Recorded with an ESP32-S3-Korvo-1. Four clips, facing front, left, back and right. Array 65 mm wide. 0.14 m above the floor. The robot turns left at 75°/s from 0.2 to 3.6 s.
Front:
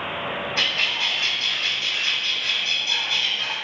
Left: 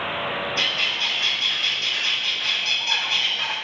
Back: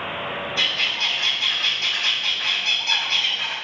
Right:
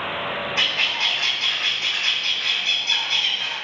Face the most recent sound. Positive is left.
turn(degrees=90)